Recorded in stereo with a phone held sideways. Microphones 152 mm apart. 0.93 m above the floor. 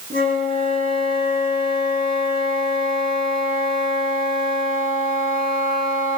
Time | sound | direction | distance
0.1 | a flute | 85° right | 6 m